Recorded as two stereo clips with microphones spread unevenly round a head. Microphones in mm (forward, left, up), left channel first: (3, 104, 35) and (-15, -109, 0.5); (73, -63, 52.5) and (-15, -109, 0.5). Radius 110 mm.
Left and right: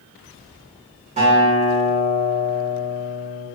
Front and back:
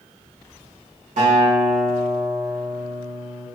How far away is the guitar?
About 1.3 m.